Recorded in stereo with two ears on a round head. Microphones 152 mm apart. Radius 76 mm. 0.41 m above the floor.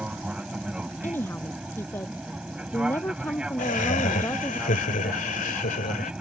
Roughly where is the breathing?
No breathing in this recording.